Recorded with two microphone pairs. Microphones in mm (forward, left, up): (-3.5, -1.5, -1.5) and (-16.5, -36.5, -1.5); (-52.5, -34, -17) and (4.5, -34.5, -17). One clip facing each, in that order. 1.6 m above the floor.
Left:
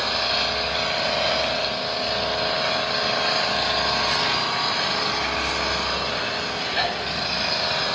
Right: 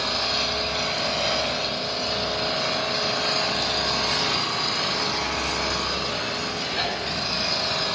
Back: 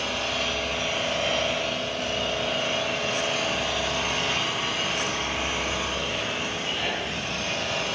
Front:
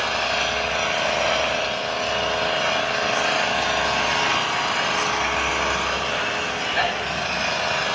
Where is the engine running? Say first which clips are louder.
Left 2 dB, front 5 dB; 10° left, 7.5 m.